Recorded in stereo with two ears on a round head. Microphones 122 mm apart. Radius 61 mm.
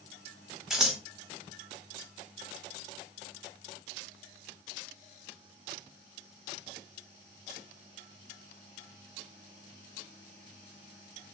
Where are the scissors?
Centre (ahead or behind), 1.0 m.